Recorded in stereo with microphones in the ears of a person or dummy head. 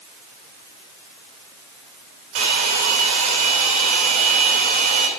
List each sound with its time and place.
2.4 s a hair dryer: 65° right (ahead or behind), 2 m